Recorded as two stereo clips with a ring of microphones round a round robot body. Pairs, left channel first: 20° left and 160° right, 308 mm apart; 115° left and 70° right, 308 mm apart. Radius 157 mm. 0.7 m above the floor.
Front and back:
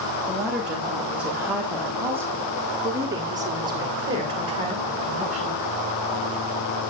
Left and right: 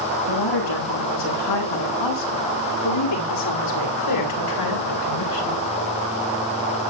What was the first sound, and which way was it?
A woman speaking, 115° left.